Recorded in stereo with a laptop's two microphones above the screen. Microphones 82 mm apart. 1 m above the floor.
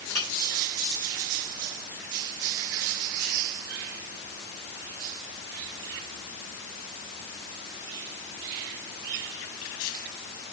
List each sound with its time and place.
0.1 s a clink: 40° left (ahead or behind), 5.5 m